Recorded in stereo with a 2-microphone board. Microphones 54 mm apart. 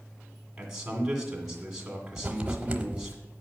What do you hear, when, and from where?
0.6 s a man speaking: 10° right (ahead or behind), 2 m
2.2 s writing: 25° right (ahead or behind), 0.9 m